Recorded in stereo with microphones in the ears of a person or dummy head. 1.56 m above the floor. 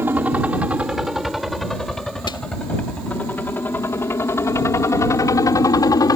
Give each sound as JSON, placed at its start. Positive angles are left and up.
{"t": 0.0, "sound": "a helicopter", "side_deg": -10}
{"t": 2.3, "sound": "a snare drum", "side_deg": 25}